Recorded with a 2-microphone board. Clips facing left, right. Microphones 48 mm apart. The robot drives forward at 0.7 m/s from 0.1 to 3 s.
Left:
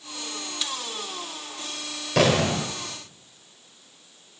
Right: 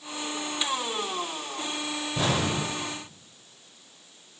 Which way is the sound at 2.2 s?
80° left.